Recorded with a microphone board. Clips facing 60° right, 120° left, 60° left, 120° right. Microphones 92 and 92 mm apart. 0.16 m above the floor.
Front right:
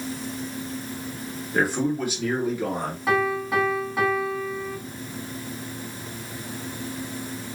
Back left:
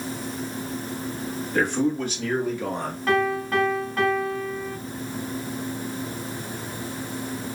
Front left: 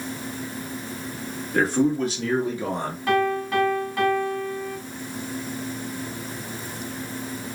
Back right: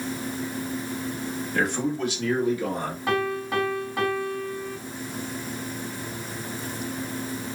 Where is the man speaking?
20° left, 1.7 m; by 3.0 s 25° left, 1.2 m.